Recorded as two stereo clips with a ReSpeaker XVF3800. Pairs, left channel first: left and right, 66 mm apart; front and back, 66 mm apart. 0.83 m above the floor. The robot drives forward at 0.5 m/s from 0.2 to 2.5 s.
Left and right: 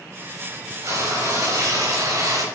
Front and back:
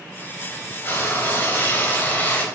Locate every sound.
0.8 s frying: 55° right, 4.5 m; by 2.5 s 65° right, 4 m